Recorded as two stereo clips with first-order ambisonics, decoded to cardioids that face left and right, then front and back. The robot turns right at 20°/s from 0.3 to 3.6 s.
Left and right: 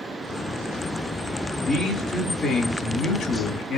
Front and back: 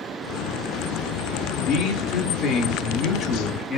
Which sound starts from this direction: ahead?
A man speaking, at 1.6 s.